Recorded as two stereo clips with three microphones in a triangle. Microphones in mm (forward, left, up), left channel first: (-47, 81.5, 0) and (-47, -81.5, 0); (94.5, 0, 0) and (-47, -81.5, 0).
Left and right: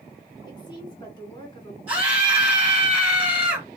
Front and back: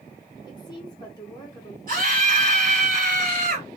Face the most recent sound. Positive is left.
turn(degrees=-170)